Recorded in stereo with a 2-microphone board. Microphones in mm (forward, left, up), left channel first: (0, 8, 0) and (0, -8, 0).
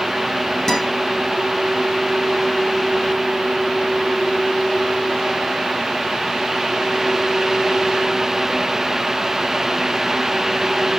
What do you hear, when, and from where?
0.7 s a guitar: 25° left (ahead or behind), 2.5 m